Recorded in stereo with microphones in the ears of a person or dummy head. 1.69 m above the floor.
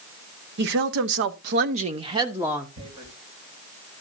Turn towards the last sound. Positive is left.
turn(degrees=-30)  # may be behind; listen again after turning